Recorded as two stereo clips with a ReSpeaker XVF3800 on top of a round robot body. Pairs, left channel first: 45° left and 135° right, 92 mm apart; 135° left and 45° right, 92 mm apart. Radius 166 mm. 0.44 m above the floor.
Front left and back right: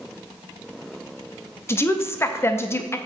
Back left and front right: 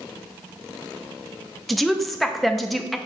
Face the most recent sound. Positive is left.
turn(degrees=45)